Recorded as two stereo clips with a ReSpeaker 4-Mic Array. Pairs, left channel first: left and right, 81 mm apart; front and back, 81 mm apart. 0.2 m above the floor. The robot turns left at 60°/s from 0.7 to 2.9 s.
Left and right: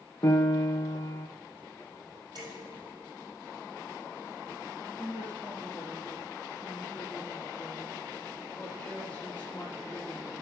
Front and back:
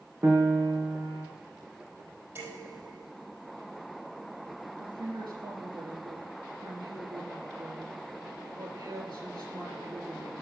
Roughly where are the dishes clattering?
Behind right.